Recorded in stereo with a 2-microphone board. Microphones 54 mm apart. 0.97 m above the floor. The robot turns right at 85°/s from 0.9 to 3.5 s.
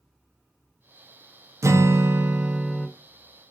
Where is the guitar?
80° right, 0.6 m; by 2.9 s 25° left, 0.6 m.